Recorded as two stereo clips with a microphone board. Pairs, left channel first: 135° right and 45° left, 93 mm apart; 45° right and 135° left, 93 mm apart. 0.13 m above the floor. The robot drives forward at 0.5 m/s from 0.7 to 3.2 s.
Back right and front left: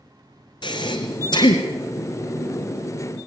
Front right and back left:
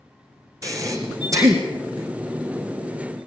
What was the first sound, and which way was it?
Breathing, 170° right.